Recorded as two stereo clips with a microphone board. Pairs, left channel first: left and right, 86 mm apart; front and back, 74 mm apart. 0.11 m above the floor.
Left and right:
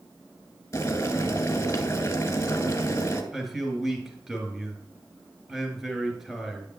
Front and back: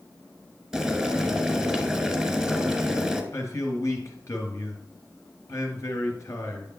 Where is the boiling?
100° left, 1.2 m.